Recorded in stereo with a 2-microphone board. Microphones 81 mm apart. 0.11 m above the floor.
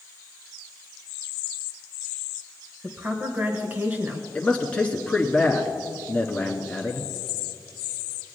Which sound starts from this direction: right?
A woman speaking, at 2.8 s.